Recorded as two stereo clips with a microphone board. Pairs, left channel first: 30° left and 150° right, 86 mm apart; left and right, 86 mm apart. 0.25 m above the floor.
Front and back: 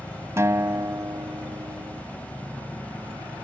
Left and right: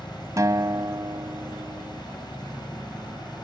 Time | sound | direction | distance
0.4 | a guitar | 115° right | ?